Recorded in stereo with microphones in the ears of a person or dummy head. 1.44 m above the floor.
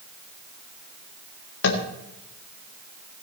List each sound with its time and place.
1.6 s tapping: 70° left (ahead or behind), 1.8 m